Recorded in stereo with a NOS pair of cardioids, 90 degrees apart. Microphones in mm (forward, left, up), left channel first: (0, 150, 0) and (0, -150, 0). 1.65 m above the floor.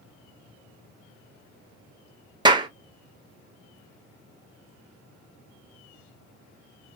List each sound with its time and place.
2.5 s a clap: 15° right, 0.8 m